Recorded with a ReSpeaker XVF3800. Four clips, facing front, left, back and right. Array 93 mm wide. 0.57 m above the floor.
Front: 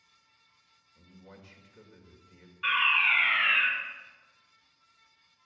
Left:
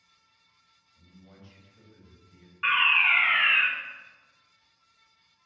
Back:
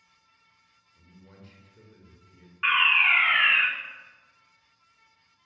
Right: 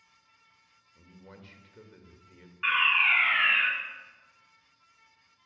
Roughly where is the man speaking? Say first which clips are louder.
Right 3 dB, front 1 dB; right.